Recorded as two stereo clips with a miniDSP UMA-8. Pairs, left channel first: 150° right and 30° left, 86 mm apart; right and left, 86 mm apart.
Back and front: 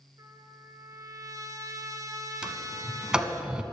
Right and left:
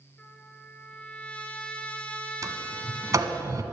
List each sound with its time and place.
0.2 s a trumpet: 15° right, 0.8 m
2.4 s a sliding door: 105° left, 0.8 m